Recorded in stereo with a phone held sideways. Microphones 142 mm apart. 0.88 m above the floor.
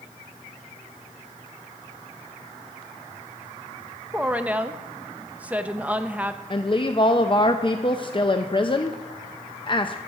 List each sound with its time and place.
4.1 s a woman speaking: 10° right (ahead or behind), 0.6 m
6.5 s a woman speaking: 35° left (ahead or behind), 0.5 m